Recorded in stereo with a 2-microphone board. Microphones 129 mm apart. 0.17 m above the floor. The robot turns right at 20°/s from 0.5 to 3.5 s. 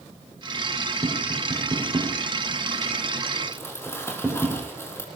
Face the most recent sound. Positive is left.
turn(degrees=20)  # may be behind; listen again after turning